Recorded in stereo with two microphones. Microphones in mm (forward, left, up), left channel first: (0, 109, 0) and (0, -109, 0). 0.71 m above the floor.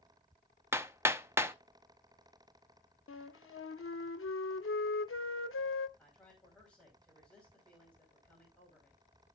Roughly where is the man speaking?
Centre.